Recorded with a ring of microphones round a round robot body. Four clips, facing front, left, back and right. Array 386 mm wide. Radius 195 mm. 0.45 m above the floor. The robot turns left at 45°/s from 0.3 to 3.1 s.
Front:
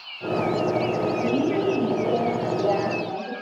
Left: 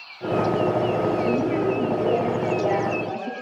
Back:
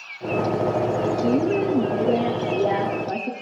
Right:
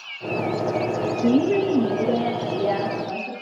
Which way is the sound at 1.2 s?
100° right.